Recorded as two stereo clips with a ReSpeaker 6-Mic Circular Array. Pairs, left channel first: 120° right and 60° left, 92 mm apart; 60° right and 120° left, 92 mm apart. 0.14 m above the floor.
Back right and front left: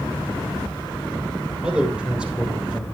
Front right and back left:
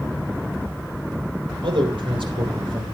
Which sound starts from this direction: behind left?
A man speaking, at 1.6 s.